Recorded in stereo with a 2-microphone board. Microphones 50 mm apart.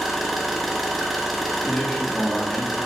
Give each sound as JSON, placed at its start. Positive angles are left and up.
{"t": 0.0, "sound": "an engine running", "side_deg": -5, "distance_m": 0.8}
{"t": 1.7, "sound": "a man speaking", "side_deg": 15, "distance_m": 1.4}